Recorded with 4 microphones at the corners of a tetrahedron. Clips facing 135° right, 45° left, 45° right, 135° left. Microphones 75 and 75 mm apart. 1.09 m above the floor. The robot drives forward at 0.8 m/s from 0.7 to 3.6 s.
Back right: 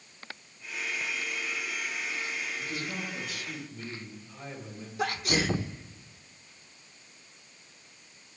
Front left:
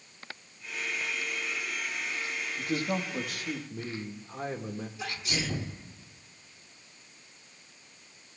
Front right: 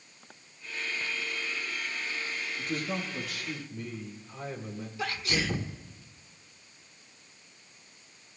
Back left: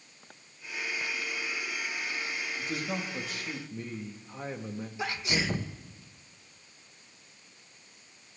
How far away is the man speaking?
About 2.0 m.